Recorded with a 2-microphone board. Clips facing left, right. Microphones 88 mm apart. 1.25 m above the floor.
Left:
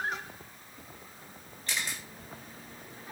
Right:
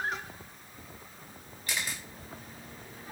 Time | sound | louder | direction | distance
1.7 | a camera shutter | even | 5° right (ahead or behind) | 3 m